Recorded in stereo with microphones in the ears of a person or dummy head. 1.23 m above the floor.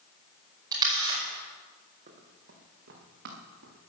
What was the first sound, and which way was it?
A camera shutter, 25° right (ahead or behind).